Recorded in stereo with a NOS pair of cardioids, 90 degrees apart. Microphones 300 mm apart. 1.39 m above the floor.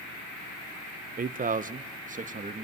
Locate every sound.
1.2 s a man speaking: 30° right, 0.8 m; by 2.6 s 25° right, 2.5 m